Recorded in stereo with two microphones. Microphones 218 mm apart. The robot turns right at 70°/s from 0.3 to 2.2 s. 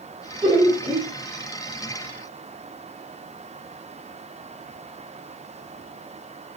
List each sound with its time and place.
0.4 s laughter: 10° right (ahead or behind), 1.4 m; by 1.1 s 20° right (ahead or behind), 1.4 m